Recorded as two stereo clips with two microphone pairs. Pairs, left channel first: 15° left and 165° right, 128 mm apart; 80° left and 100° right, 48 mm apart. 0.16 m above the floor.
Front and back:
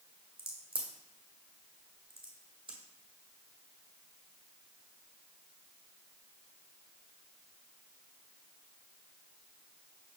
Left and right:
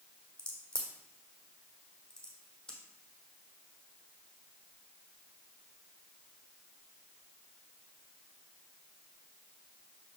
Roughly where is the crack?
Behind left.